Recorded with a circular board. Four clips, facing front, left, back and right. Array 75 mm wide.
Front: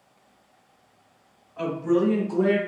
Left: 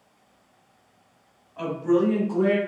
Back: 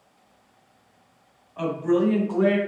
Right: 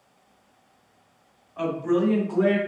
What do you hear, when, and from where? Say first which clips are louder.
1.6 s a woman speaking: left 1 dB, back 1 dB; 155° right, 1.6 m; by 2.6 s 160° right, 2 m